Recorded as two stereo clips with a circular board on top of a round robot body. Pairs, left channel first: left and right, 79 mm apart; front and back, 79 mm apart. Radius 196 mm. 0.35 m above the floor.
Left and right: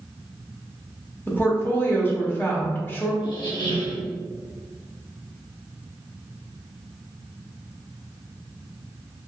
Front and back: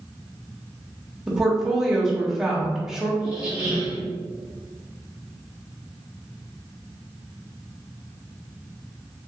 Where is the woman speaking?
100° left, 1.1 m.